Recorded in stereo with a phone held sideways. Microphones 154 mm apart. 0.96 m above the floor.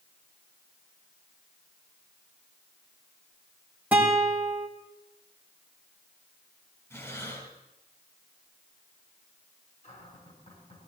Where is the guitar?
10° right (ahead or behind), 3 m.